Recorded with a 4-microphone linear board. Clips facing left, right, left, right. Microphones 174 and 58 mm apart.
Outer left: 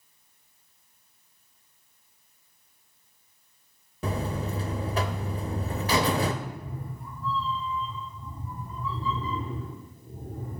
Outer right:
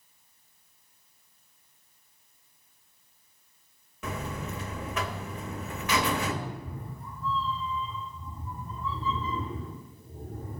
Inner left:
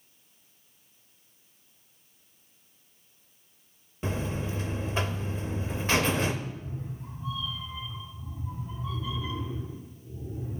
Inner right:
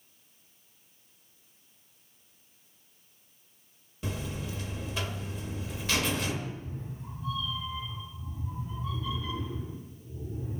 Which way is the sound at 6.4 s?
10° left (ahead or behind).